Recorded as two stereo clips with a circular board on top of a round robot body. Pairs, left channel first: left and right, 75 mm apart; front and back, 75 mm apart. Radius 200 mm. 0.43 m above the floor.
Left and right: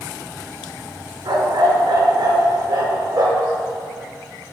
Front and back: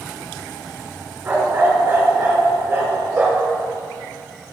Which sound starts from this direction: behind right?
A dog barking, at 1.2 s.